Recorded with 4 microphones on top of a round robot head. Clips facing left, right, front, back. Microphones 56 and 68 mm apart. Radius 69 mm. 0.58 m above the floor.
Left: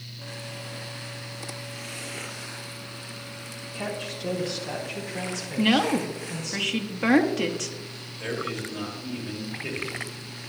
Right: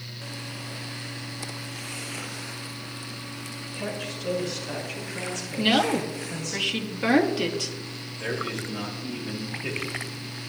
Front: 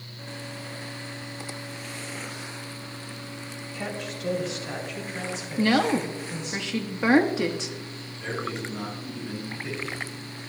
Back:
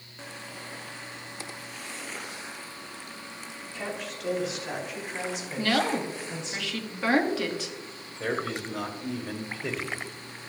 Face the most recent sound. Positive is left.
turn(degrees=180)